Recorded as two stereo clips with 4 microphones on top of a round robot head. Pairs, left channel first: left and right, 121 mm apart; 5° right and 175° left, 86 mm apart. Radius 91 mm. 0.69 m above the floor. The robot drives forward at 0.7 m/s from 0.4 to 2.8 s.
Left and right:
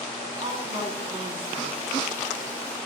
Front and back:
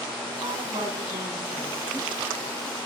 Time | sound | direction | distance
0.4 | a woman speaking | 135° right | 8.5 m